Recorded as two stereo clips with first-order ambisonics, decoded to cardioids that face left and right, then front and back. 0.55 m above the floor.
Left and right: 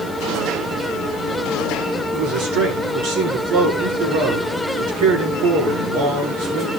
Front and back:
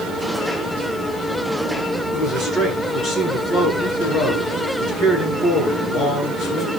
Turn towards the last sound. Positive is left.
turn(degrees=-60)